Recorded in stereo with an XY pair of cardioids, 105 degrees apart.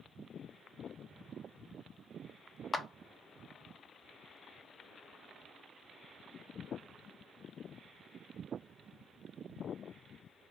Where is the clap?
25° left, 0.5 m.